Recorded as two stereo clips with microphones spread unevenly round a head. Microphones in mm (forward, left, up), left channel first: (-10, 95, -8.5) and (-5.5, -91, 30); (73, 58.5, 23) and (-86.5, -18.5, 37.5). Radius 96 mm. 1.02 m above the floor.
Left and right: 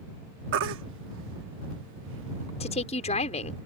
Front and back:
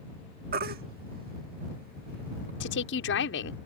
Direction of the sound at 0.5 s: 110° right.